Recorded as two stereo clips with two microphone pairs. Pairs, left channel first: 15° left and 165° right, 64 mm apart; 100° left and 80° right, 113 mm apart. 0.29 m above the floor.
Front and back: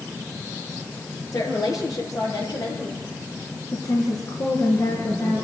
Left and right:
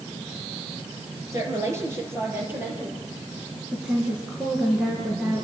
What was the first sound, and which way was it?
A woman speaking, 15° right.